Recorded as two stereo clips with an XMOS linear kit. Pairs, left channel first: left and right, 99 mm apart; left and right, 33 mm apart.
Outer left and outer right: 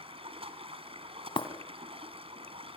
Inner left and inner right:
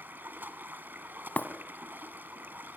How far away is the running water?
About 2.5 m.